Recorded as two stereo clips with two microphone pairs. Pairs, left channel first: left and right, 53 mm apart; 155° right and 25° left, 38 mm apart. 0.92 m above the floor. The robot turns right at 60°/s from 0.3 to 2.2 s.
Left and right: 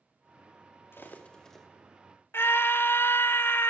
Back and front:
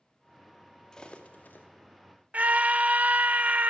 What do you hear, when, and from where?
0.9 s cutlery clinking: 130° left, 0.8 m; by 1.7 s 175° left, 0.8 m
2.3 s a scream: 60° left, 0.5 m